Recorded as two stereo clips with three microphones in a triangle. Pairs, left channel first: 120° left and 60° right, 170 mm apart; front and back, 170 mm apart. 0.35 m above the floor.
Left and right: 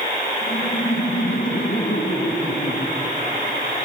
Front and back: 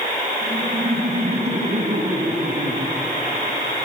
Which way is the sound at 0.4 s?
135° left.